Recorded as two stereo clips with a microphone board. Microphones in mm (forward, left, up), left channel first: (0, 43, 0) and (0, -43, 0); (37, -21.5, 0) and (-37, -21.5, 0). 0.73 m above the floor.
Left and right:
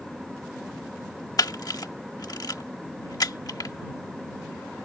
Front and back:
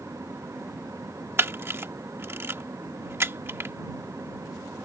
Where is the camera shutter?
125° left.